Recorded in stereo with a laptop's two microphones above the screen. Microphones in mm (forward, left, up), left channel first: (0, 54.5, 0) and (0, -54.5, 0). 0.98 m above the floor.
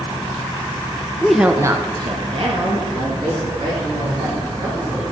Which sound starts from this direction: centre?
A woman speaking, at 1.2 s.